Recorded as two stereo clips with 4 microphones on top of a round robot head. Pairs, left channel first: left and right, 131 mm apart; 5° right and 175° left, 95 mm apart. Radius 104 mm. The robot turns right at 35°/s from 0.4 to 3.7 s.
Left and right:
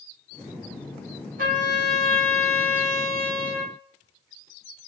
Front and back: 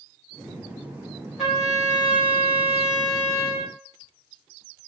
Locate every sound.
1.4 s a trumpet: 100° right, 5 m; by 3.7 s 20° right, 5 m